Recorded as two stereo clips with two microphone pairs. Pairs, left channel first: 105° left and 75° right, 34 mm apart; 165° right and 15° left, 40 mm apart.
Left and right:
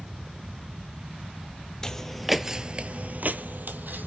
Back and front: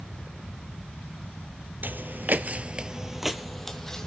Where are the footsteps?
35° left, 0.7 m; by 4.1 s 90° right, 1.0 m.